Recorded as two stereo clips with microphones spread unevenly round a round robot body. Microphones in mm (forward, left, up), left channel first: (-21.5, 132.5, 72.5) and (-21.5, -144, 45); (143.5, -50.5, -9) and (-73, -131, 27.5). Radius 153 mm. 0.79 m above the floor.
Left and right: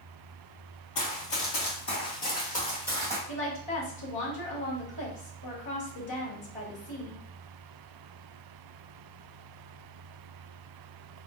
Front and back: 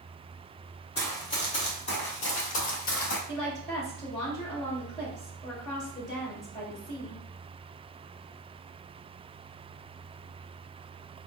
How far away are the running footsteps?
About 1.5 m.